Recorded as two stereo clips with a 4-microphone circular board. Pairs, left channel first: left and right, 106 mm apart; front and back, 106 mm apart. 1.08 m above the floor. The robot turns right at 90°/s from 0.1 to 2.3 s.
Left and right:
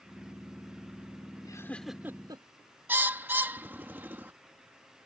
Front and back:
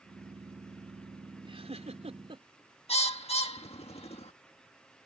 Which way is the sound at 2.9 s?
20° right.